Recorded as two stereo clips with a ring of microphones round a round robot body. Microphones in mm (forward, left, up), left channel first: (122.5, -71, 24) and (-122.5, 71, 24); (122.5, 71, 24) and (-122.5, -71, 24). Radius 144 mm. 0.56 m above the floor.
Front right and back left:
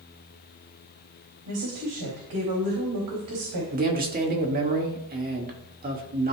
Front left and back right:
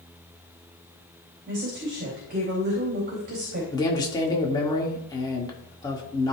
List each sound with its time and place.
1.5 s a woman speaking: 155° left, 3.5 m
3.7 s a man speaking: 100° left, 1.4 m